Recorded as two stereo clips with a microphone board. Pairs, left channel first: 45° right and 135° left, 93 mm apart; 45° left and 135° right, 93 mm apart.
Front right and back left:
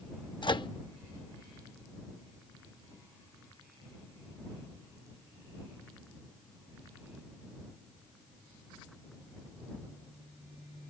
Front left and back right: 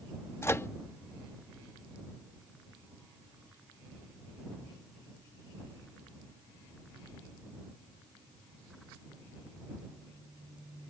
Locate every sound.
0.4 s a microwave: 15° right